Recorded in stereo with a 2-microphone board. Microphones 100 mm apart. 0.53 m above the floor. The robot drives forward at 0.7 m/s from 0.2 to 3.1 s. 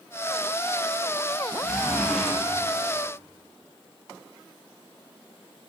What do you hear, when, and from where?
1.6 s a zipper: 5° left (ahead or behind), 2.5 m